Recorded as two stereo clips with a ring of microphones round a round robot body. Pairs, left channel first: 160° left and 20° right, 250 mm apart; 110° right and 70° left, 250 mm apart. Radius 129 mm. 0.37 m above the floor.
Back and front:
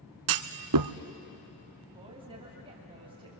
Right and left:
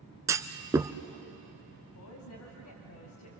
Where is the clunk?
10° right, 0.8 m.